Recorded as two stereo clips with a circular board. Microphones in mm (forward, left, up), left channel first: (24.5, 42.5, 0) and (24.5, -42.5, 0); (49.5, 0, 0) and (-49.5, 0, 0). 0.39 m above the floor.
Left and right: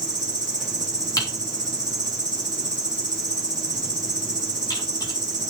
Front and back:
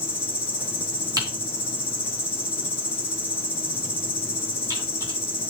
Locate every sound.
0.0 s an insect: 110° right, 1.7 m
1.2 s typing on a keyboard: 130° left, 2 m